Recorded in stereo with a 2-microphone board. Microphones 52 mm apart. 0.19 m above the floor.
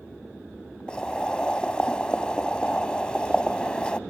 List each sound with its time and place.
0.9 s boiling: 20° left (ahead or behind), 0.5 m